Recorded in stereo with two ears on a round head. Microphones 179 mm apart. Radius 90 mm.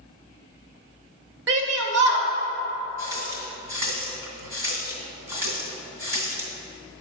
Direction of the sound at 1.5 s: 60° right (ahead or behind).